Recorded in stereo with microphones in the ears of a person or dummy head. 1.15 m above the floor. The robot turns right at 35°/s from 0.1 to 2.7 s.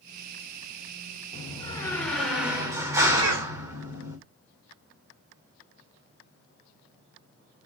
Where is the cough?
70° right (ahead or behind), 1.1 m.